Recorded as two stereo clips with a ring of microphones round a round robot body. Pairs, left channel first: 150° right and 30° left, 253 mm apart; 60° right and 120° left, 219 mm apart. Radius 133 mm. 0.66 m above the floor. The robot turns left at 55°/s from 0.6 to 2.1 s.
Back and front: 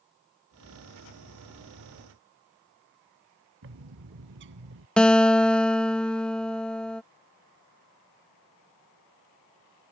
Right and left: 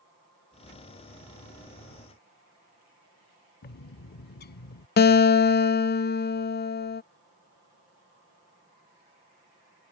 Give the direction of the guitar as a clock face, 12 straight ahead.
2 o'clock.